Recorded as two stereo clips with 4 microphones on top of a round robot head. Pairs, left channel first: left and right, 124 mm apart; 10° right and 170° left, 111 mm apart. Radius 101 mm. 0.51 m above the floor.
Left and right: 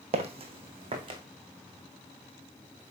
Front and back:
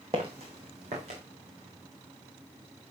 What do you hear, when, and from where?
0.1 s footsteps: 125° right, 1.1 m; by 1.2 s 140° right, 2 m